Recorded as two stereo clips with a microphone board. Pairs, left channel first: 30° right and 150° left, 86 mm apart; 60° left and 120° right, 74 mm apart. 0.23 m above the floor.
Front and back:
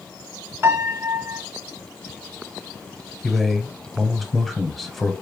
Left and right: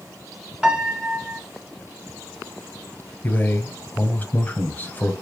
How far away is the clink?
I don't hear a clink.